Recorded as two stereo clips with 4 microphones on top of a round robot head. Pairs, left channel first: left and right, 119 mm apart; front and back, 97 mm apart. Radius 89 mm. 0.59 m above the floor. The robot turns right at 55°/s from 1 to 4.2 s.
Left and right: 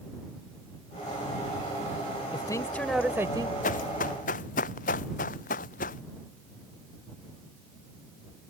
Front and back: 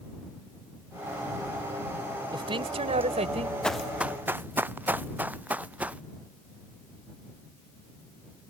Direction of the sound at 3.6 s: 85° left.